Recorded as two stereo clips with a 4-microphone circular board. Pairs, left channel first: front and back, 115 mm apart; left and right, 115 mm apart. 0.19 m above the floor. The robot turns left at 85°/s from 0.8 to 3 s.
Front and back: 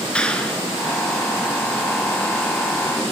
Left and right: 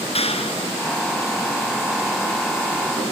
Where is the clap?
80° left, 2.5 m.